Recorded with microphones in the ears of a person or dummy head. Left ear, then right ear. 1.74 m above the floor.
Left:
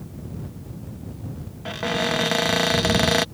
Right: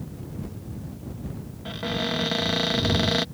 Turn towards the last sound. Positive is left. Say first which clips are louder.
# left 4 dB
turn(degrees=30)  # may be behind; listen again after turning